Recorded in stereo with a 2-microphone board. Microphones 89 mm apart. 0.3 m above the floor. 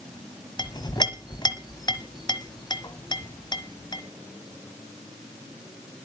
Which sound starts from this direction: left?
A clink, at 0.6 s.